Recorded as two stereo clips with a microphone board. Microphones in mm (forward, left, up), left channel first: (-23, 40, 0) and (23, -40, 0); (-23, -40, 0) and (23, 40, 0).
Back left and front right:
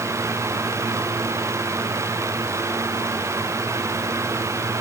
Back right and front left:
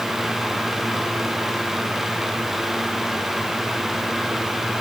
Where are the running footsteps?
I don't hear running footsteps.